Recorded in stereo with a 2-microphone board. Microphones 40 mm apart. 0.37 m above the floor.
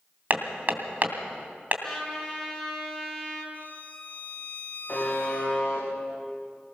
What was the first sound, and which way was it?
Hammering, 45° right (ahead or behind).